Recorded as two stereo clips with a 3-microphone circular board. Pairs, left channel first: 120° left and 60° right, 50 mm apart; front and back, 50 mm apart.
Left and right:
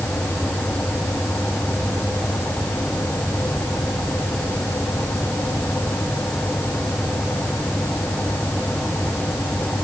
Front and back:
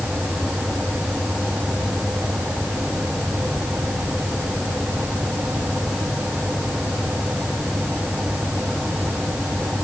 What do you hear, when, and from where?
Only background noise.